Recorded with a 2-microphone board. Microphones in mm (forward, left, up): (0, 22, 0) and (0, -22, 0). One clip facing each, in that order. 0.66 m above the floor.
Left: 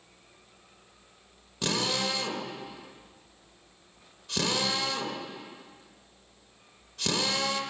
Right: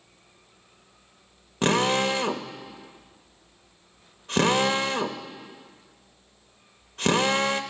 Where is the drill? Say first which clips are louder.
Right 8 dB; 40° right (ahead or behind), 1.0 m.